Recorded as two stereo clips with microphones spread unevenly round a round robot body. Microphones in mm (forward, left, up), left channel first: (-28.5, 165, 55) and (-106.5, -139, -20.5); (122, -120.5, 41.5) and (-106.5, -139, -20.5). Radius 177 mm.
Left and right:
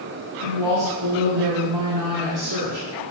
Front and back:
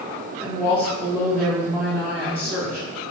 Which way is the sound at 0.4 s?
85° right.